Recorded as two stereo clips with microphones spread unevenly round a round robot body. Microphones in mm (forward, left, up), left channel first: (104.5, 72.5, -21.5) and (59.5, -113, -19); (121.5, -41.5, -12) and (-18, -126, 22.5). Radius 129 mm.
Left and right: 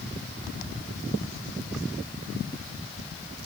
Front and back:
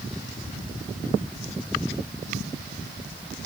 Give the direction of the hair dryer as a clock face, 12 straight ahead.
No hair dryer in this recording.